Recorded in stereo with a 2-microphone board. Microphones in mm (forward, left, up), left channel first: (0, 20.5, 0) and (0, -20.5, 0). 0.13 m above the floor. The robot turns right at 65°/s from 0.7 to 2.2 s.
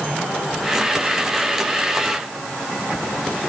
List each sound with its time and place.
Only background noise.